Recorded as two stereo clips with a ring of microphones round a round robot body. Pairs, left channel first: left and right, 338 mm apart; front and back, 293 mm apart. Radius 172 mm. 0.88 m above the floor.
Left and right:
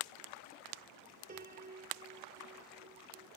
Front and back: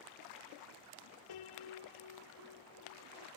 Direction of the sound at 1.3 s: 20° right.